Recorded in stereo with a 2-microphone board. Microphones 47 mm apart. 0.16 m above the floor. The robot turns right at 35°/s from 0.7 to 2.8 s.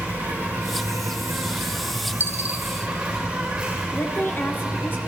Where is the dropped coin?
45° right (ahead or behind), 1.5 m; by 2.6 s 30° right (ahead or behind), 1.5 m.